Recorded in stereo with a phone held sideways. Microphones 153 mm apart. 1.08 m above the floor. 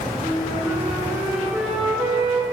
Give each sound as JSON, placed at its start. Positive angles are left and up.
{"t": 0.2, "sound": "a flute", "side_deg": -5, "distance_m": 4.0}